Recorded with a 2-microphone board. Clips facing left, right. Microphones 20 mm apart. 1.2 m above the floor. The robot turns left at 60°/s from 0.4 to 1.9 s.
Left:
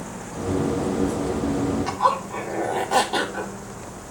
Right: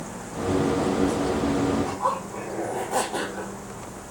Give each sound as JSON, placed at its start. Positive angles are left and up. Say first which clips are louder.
{"t": 1.9, "sound": "a zipper", "louder": "left 5 dB", "side_deg": 65, "distance_m": 4.0}